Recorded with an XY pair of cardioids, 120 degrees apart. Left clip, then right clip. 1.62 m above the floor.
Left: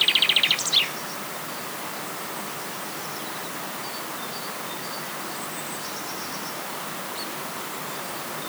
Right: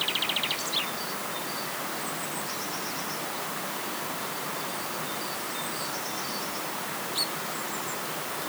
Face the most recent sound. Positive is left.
No sound to turn to.